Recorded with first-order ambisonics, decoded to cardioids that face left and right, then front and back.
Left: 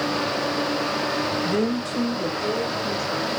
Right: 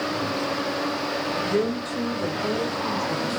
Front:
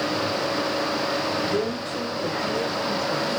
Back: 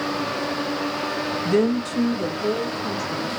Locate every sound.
1.4 s a woman speaking: 165° left, 0.5 m; by 3.3 s 155° left, 2.0 m